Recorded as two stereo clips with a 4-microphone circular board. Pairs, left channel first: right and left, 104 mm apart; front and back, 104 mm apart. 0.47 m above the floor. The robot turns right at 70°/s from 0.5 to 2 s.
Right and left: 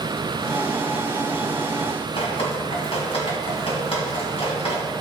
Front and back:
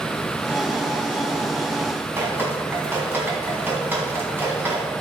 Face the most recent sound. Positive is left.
turn(degrees=-110)